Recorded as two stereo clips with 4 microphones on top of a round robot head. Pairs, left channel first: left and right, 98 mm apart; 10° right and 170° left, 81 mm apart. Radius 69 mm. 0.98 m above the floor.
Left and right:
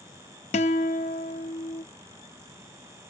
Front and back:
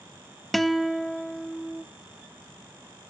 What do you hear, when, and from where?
0.5 s a guitar: 75° left, 1.0 m